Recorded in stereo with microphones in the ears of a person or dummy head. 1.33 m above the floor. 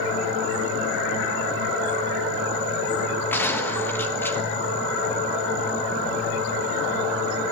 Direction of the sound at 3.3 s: 20° left (ahead or behind).